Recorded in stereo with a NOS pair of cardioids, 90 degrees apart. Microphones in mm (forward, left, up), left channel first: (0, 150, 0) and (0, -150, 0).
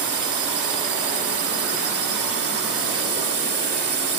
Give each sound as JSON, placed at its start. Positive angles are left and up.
{"t": 0.0, "sound": "a drone", "azimuth_deg": -50}